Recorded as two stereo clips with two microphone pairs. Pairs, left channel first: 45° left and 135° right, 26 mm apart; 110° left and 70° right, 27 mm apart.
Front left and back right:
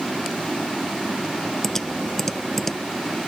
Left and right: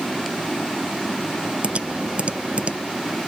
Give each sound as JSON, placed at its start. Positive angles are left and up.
{"t": 1.6, "sound": "typing on a keyboard", "azimuth_deg": -30}